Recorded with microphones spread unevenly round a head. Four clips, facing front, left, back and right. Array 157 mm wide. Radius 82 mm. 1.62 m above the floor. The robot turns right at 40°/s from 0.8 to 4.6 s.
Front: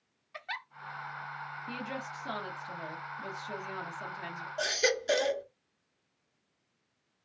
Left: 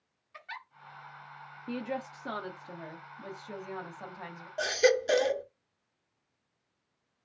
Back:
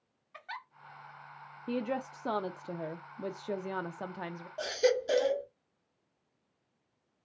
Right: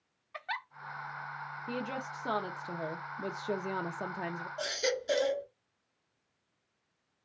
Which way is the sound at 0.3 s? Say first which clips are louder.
Right 6 dB, front 2 dB; 50° right.